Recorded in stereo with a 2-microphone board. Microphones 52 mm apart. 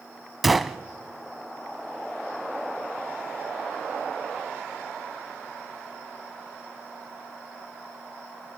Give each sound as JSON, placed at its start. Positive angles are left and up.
{"t": 0.4, "sound": "a gunshot", "side_deg": 0, "distance_m": 0.7}